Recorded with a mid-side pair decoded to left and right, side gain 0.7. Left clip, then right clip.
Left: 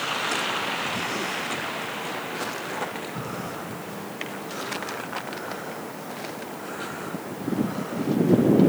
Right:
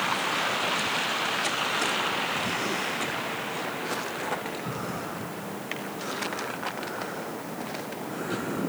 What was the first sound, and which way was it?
Only background noise.